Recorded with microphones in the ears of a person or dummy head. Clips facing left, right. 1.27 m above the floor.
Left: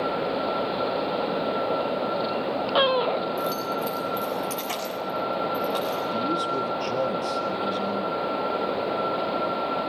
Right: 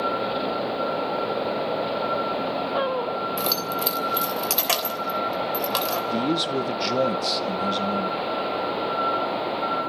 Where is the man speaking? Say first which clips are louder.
Right 3 dB; 25° right (ahead or behind), 0.7 m.